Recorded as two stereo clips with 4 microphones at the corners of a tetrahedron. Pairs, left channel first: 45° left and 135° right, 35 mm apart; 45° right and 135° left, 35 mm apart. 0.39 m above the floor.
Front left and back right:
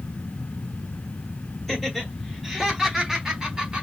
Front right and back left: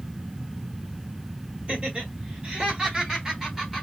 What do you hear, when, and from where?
1.7 s laughter: 125° left, 1.5 m; by 3.8 s 145° right, 1.2 m